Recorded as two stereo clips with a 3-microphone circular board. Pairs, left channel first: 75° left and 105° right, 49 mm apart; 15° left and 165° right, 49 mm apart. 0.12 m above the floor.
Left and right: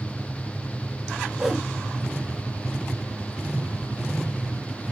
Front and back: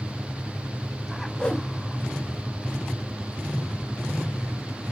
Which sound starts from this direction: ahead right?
A whoosh, at 1.4 s.